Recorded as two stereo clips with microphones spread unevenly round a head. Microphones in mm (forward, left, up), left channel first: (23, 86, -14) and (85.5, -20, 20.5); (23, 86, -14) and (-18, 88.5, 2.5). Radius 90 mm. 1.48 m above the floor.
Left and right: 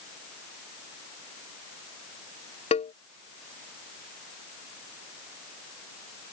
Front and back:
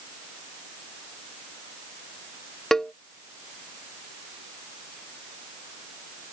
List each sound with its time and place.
2.7 s a cowbell: 85° left